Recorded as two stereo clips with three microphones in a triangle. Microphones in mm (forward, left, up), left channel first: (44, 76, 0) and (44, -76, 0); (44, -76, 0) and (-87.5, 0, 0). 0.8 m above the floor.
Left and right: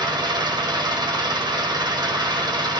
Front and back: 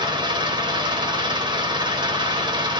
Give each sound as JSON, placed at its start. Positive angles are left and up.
{"t": 0.0, "sound": "an engine running", "azimuth_deg": -150, "distance_m": 2.5}